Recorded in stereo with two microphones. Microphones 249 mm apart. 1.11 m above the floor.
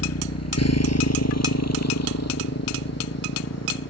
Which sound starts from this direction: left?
A motorcycle, at 0.0 s.